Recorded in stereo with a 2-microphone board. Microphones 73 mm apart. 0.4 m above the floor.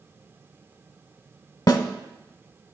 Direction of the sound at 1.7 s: 60° left (ahead or behind).